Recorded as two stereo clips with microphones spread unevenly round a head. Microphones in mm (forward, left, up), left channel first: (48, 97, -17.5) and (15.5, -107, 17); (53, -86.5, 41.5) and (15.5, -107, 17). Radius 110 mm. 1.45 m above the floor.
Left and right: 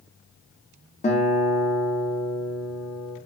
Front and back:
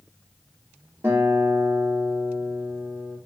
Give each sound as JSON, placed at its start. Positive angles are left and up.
{"t": 1.0, "sound": "a guitar", "azimuth_deg": 135, "distance_m": 0.7}